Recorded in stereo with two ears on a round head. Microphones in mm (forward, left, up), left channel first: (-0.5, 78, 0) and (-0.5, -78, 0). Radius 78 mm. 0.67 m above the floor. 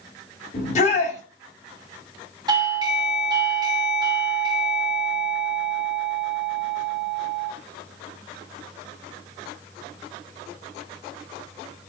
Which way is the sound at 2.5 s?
25° right (ahead or behind).